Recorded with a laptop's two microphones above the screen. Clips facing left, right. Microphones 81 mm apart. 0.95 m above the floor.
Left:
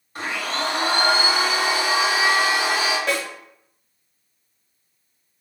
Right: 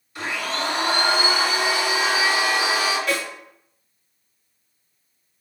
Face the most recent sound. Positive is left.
turn(degrees=35)  # may be behind; listen again after turning